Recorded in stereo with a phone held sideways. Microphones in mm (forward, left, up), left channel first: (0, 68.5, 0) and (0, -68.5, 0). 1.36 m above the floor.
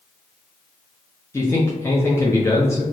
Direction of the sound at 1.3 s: 20° left (ahead or behind).